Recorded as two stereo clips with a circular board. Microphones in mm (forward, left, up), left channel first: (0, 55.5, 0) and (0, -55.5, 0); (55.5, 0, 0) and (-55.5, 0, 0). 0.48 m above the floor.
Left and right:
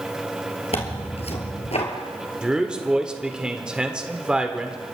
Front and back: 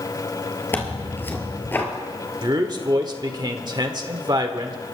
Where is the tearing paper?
70° left, 2 m.